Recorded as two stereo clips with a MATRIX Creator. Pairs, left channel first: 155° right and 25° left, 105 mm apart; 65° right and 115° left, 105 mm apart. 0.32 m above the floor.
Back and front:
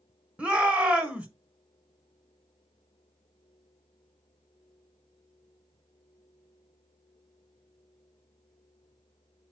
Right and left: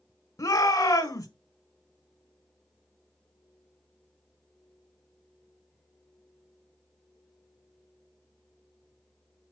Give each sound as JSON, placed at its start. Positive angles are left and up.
{"t": 0.4, "sound": "a shout", "azimuth_deg": -50, "distance_m": 1.4}